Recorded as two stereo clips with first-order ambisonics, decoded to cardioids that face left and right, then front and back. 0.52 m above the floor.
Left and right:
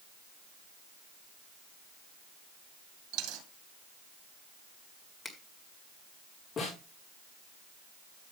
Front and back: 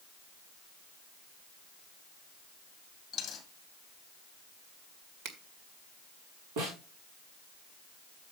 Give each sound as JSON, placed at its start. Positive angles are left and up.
{"t": 3.1, "sound": "a dropped coin", "azimuth_deg": -70, "distance_m": 2.5}
{"t": 5.2, "sound": "a finger snap", "azimuth_deg": 170, "distance_m": 1.9}
{"t": 6.6, "sound": "a snare drum", "azimuth_deg": 160, "distance_m": 7.0}